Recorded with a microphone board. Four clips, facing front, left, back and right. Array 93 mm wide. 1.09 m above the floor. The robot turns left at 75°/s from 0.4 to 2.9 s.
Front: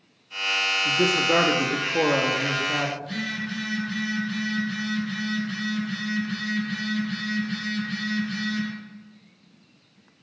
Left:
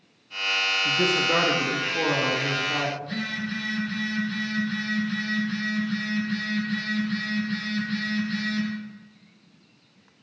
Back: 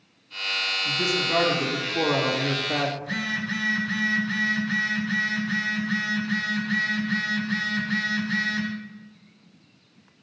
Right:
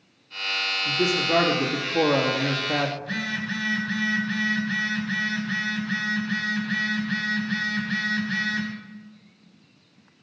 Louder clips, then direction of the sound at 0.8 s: Right 1 dB, front 5 dB; 60° left.